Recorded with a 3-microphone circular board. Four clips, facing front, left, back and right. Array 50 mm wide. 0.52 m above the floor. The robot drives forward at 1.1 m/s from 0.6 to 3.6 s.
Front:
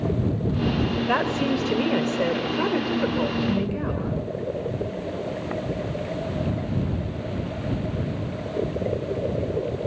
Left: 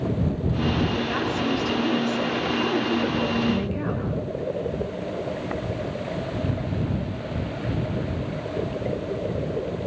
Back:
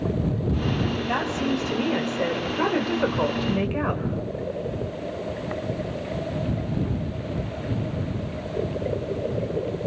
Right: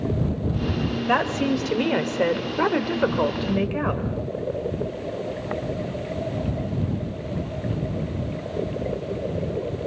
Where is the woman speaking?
55° right, 2.5 m; by 4.0 s 130° right, 2.5 m.